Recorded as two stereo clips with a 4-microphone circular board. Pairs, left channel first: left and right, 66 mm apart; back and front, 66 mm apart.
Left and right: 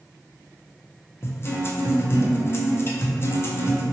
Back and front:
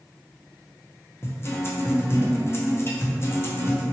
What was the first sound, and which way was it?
A guitar, 135° left.